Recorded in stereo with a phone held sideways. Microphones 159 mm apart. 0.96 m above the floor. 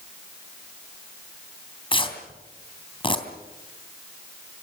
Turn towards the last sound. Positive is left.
turn(degrees=35)  # may be behind; listen again after turning